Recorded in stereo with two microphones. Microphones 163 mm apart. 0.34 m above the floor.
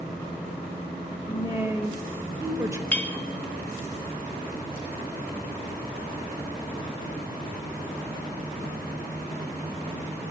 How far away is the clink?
About 0.6 m.